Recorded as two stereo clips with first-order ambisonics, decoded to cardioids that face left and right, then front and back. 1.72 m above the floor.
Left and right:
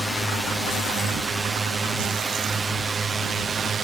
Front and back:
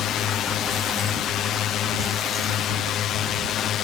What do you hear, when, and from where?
0.0 s a drone: straight ahead; by 3.9 s 30° right